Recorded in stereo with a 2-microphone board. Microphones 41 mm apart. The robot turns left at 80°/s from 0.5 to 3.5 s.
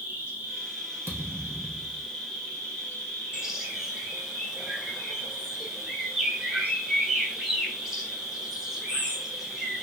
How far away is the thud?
About 1.2 m.